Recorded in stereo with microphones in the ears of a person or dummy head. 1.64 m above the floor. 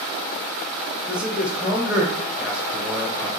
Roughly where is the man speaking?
Centre.